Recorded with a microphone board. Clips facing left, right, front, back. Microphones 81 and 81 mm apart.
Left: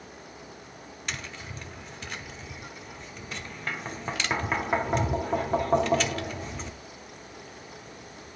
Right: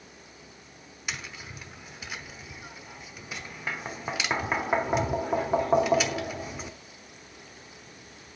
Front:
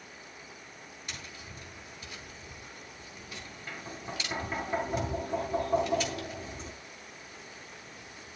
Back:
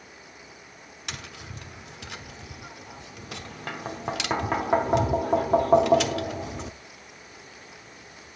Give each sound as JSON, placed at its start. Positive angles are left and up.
{"t": 1.1, "sound": "tapping", "azimuth_deg": -170, "distance_m": 1.1}